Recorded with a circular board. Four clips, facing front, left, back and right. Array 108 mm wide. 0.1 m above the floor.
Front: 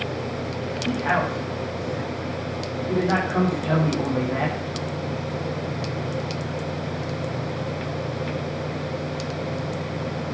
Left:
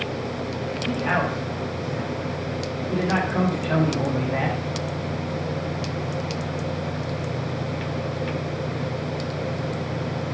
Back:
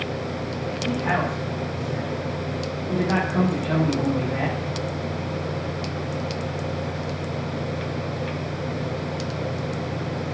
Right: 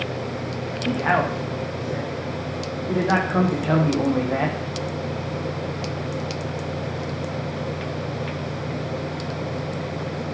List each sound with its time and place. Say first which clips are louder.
0.9 s a man speaking: right 3 dB, front 1 dB; 75° right, 7 m